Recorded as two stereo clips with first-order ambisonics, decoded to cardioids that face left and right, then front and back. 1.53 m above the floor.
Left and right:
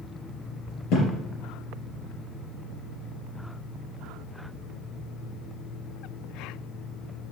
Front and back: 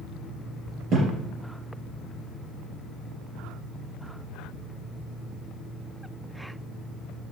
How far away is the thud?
About 3 m.